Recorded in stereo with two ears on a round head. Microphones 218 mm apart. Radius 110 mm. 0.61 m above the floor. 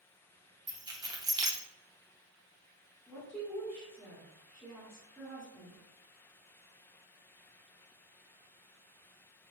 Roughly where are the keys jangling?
Centre.